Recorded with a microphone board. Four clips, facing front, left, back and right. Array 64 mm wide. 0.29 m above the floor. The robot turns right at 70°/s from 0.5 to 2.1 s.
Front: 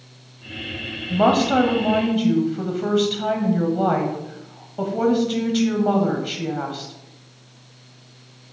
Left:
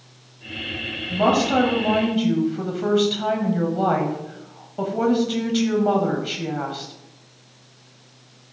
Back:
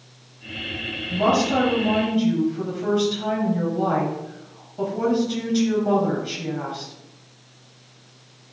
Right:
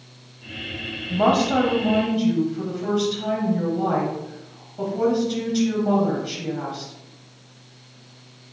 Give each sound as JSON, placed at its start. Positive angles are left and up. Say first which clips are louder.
{"t": 1.1, "sound": "a woman speaking", "louder": "even, front 3 dB", "azimuth_deg": -20, "distance_m": 1.1}